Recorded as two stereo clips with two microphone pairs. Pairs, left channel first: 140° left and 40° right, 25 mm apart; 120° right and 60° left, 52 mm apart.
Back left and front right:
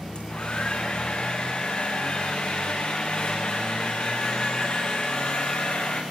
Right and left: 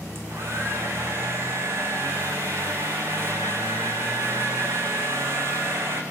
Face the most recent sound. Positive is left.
turn(degrees=95)